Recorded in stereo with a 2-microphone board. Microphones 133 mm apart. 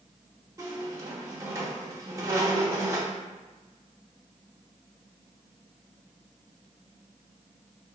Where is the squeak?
25° right (ahead or behind), 0.7 m.